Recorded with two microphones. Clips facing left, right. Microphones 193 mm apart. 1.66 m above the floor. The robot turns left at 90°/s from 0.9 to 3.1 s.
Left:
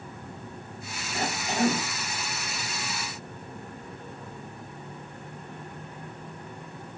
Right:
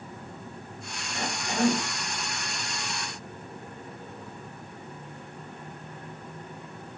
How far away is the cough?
About 5 m.